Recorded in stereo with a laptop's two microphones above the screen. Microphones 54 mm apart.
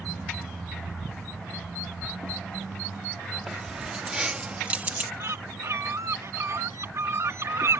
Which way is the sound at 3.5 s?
15° right (ahead or behind).